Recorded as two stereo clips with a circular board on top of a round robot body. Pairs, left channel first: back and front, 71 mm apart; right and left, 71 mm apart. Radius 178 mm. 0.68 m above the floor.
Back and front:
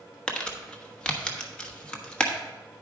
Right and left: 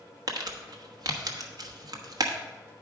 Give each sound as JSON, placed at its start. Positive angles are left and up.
{"t": 0.3, "sound": "crumpling", "azimuth_deg": 105, "distance_m": 1.3}